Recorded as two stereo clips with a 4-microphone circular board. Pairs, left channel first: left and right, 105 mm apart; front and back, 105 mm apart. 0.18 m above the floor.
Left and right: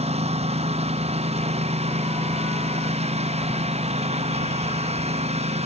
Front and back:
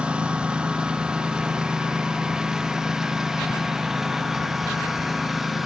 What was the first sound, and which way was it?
A lawn mower, 100° right.